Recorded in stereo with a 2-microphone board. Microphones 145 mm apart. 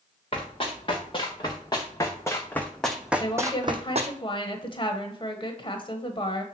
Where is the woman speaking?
35° left (ahead or behind), 1.1 m.